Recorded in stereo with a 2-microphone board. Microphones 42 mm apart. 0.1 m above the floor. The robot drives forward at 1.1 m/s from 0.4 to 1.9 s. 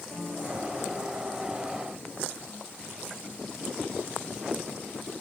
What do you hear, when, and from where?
0.1 s a piano: 10° left (ahead or behind), 9.5 m